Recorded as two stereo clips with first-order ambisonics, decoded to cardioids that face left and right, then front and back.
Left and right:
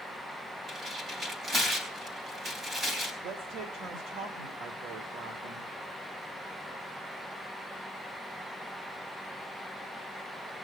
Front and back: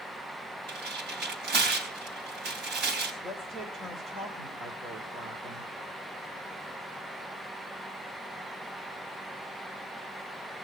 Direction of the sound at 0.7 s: 155° right.